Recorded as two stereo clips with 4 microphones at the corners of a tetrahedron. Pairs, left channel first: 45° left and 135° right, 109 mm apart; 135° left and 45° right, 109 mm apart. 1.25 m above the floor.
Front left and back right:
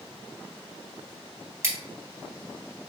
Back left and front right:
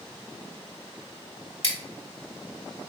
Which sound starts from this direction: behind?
Scissors, at 1.6 s.